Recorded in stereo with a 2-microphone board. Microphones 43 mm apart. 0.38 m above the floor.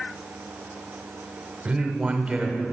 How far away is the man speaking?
About 1.0 m.